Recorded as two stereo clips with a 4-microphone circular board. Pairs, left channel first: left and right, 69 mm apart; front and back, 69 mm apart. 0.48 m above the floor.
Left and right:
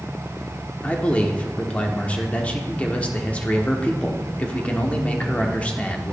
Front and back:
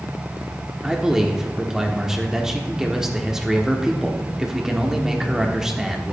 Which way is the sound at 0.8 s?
115° left.